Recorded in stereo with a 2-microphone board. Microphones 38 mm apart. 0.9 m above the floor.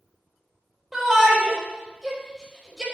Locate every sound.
0.9 s a shout: 10° right (ahead or behind), 5 m